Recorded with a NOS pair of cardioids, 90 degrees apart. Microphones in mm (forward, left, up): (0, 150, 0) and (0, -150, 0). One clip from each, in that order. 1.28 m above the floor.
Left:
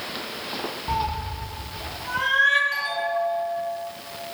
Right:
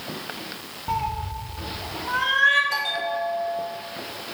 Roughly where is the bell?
Ahead right.